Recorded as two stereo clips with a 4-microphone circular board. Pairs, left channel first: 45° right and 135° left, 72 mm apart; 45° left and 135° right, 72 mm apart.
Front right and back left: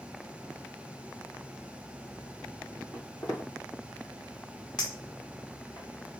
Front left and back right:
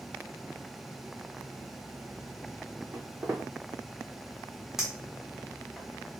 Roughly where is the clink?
Ahead right.